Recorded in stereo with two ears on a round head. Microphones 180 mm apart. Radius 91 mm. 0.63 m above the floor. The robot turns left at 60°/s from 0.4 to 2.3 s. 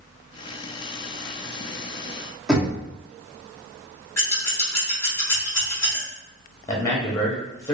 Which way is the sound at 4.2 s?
10° left (ahead or behind).